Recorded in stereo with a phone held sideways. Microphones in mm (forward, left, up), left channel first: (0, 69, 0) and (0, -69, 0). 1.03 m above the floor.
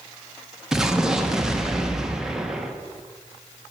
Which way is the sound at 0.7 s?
5° right (ahead or behind).